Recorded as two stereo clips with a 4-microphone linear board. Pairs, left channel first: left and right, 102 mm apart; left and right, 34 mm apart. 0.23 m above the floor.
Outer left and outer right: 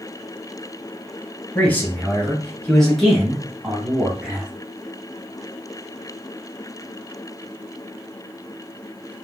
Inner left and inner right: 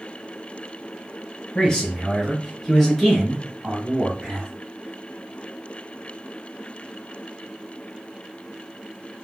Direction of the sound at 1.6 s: 15° left (ahead or behind).